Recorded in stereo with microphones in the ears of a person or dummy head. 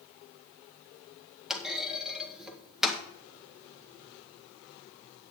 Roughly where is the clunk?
Centre.